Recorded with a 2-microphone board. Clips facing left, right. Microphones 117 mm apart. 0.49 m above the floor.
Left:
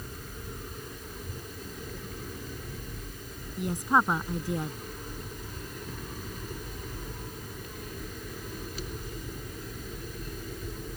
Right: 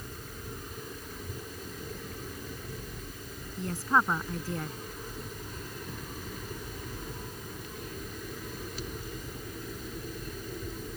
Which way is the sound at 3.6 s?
15° left (ahead or behind).